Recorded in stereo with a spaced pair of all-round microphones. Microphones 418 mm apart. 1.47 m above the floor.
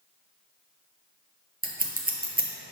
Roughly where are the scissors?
Right.